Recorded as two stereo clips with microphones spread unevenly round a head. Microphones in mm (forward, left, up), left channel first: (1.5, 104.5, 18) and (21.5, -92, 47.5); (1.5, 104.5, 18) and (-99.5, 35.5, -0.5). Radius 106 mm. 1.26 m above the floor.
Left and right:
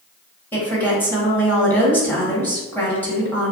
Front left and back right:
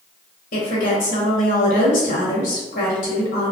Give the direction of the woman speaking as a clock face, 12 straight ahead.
11 o'clock.